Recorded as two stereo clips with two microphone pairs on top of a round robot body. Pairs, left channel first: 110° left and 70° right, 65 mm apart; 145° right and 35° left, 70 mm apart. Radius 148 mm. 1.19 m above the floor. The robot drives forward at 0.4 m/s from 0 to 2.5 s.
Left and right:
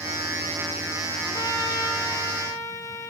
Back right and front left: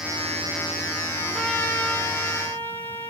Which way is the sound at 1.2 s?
140° left.